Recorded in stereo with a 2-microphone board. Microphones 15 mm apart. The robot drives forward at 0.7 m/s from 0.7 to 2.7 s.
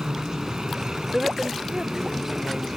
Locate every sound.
0.0 s a helicopter: 55° right (ahead or behind)
1.1 s a woman speaking: 30° right (ahead or behind); by 2.7 s 15° right (ahead or behind)